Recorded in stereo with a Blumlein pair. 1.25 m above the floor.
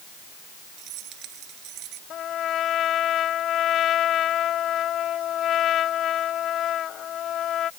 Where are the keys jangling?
35° right.